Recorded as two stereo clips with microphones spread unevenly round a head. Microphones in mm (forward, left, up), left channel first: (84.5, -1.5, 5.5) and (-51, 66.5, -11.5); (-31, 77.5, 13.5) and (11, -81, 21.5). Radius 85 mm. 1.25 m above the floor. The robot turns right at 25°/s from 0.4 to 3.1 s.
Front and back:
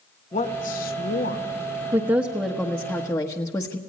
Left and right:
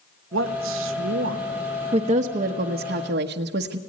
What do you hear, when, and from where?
0.3 s a man speaking: 80° right, 1.4 m; by 1.5 s 55° right, 1.4 m
1.9 s a woman speaking: 135° right, 1.1 m; by 3.8 s 105° right, 1.1 m